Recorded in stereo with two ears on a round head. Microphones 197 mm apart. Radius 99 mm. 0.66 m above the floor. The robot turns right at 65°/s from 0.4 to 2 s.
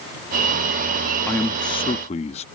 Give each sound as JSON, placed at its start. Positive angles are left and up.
{"t": 1.3, "sound": "a man speaking", "azimuth_deg": 10}